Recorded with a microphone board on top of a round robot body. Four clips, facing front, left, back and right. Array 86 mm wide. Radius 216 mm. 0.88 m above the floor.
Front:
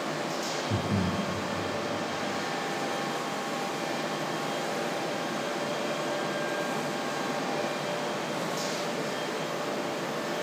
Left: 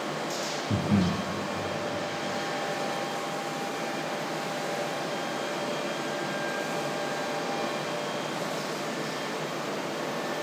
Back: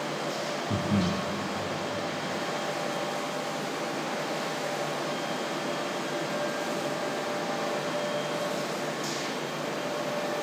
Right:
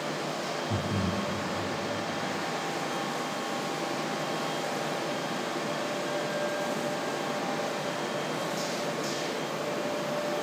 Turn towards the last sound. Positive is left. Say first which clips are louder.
# left 7 dB, back 3 dB
turn(degrees=105)